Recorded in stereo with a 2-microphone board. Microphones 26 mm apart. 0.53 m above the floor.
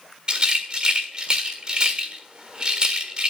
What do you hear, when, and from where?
0.3 s a rattle: 45° right (ahead or behind), 1.5 m